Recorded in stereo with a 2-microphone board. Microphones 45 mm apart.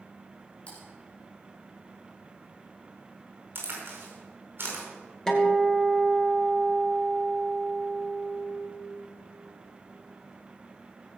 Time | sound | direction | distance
0.7 | typing on a keyboard | 25° left (ahead or behind) | 6 m
3.5 | a crack | 50° right (ahead or behind) | 5 m
5.3 | a guitar | 15° left (ahead or behind) | 2.5 m